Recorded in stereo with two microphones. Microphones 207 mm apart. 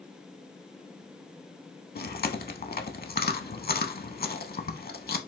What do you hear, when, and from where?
1.9 s chewing: 50° left (ahead or behind), 0.6 m